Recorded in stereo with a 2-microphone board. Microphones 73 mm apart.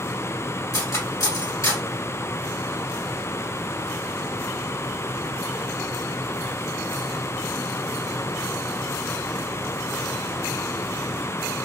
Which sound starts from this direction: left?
Cutlery clinking, at 0.7 s.